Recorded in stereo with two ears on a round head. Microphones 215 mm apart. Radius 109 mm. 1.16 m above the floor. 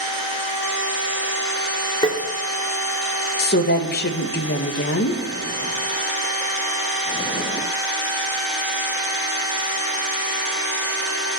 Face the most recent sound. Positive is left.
turn(degrees=45)  # may be behind; listen again after turning